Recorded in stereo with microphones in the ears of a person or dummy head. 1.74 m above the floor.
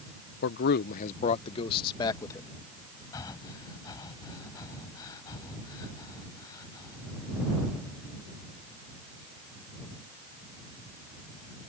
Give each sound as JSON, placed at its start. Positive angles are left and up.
{"t": 0.4, "sound": "a man speaking", "side_deg": 70}
{"t": 3.1, "sound": "breathing", "side_deg": 25}